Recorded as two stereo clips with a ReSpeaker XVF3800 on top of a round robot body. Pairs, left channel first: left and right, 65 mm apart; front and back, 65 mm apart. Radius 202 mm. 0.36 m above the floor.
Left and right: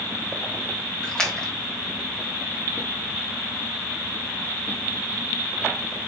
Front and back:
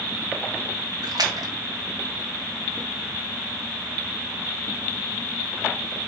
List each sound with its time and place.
1.0 s a splash: 170° left, 1.9 m